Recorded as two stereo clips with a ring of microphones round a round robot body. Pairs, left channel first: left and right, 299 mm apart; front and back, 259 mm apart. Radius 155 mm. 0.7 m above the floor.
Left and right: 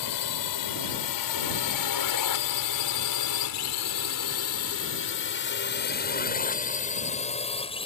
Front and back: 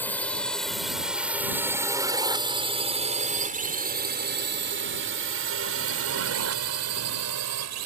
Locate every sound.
0.0 s a drone: 85° left; by 7.9 s 165° left